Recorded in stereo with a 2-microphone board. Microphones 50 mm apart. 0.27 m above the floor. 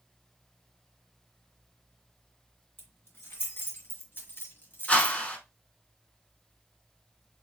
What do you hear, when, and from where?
2.8 s keys jangling: 45° left (ahead or behind), 2 m; by 5.2 s 40° left (ahead or behind), 1.2 m
4.9 s a whoosh: 25° left (ahead or behind), 0.8 m